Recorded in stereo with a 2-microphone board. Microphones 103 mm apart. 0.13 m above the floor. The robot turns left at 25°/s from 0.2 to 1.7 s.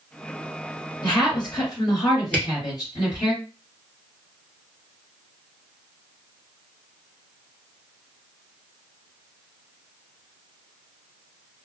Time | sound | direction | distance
1.0 | a woman speaking | 45° left (ahead or behind) | 2 m
2.3 | a camera shutter | 15° left (ahead or behind) | 1.3 m